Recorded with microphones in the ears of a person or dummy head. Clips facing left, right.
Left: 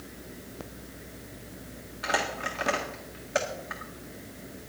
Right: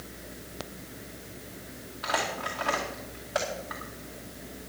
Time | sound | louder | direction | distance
2.0 | crumpling | left 1 dB | 30° left (ahead or behind) | 2 m